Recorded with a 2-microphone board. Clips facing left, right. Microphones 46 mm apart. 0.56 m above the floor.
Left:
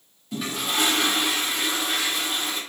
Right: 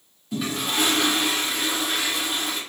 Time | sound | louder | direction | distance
0.3 | a toilet flushing | right 1 dB | centre (ahead or behind) | 0.8 m